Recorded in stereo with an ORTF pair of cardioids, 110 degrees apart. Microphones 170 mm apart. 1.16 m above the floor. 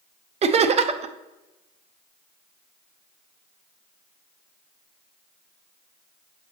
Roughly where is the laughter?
Ahead right.